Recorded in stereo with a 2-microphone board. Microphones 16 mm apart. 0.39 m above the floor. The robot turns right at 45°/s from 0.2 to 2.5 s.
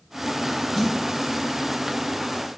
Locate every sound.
0.8 s a snare drum: 15° left (ahead or behind), 0.9 m; by 0.9 s 20° left (ahead or behind), 0.9 m